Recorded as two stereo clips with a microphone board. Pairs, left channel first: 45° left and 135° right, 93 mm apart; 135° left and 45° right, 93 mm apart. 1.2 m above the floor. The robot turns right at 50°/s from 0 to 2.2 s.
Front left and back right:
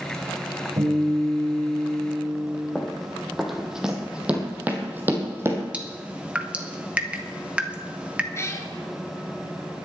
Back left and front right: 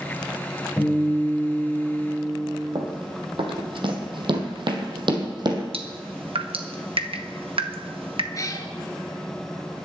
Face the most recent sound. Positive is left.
turn(degrees=95)